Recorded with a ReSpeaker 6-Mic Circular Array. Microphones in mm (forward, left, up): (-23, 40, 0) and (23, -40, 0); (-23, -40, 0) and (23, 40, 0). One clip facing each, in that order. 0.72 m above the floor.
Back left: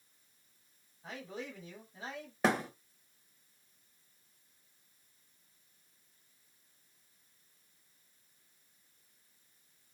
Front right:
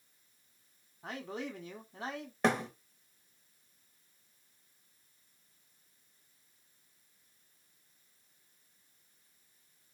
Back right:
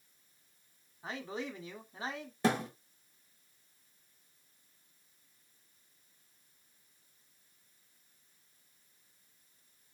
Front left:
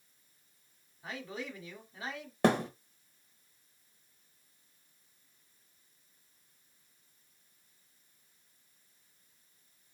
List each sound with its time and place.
1.0 s a man speaking: 55° right, 1.6 m
2.4 s a thud: 35° left, 1.4 m